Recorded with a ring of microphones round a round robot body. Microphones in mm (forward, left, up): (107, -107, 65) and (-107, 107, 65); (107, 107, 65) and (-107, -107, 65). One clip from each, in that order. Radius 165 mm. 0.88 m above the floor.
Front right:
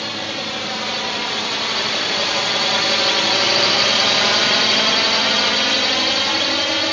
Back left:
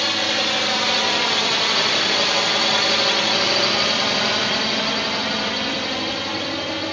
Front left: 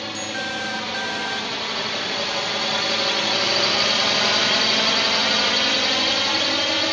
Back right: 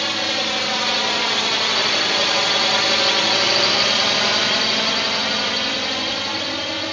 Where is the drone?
160° right; by 6.9 s 20° right.